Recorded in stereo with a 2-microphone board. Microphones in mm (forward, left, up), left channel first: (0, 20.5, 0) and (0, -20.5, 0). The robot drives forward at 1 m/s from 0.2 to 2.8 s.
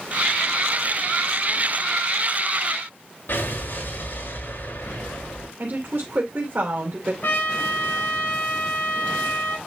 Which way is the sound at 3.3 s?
70° left (ahead or behind).